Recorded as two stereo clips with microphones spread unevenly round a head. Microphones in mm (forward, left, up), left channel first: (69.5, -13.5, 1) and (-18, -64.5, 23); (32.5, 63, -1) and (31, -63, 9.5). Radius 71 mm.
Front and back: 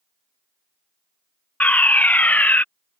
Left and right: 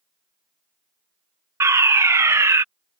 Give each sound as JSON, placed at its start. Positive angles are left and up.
{"t": 1.6, "sound": "a fire alarm", "azimuth_deg": -25}